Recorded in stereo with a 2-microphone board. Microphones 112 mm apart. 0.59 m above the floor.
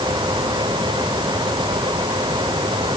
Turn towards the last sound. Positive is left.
No sound to turn to.